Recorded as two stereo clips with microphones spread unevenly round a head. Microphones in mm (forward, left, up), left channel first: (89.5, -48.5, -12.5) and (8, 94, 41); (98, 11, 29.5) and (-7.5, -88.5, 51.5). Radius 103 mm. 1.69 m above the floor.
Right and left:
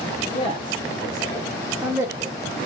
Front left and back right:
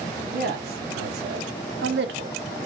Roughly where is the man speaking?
Behind right.